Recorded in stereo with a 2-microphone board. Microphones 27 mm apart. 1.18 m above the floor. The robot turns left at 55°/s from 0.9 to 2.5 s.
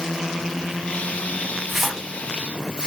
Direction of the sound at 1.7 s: 5° right (ahead or behind).